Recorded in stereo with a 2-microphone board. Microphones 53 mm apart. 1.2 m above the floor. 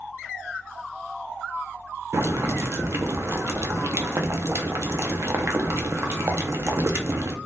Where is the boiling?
55° right (ahead or behind), 0.5 m.